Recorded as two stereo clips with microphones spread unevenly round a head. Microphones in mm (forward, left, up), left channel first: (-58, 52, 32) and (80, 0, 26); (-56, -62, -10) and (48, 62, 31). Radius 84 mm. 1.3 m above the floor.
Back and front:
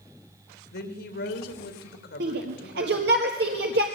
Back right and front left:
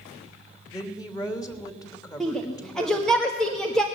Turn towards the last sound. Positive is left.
turn(degrees=-45)